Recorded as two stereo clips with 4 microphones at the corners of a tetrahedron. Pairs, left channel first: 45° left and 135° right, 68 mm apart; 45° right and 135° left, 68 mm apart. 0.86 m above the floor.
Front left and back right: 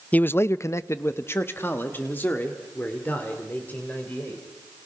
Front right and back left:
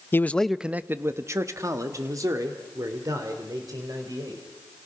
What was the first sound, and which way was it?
A man speaking, 15° right.